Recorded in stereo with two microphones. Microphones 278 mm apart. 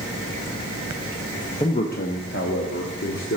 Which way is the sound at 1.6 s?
15° left (ahead or behind).